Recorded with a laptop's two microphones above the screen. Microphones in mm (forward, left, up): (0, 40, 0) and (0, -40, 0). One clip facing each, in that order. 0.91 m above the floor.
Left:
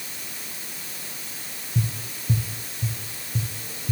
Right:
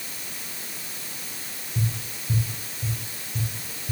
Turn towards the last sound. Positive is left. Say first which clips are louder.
# left 1 dB
turn(degrees=80)